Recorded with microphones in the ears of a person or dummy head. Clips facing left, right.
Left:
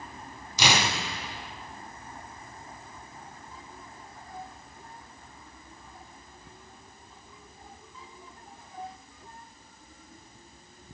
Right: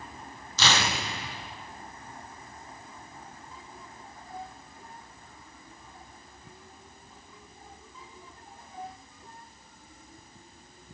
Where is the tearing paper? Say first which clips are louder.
Left 1 dB; 15° left (ahead or behind), 0.5 m.